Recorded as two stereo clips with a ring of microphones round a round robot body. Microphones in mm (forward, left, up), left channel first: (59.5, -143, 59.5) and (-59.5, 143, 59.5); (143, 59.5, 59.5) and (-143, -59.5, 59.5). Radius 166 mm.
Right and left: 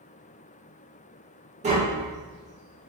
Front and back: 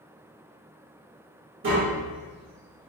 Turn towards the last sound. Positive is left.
turn(degrees=170)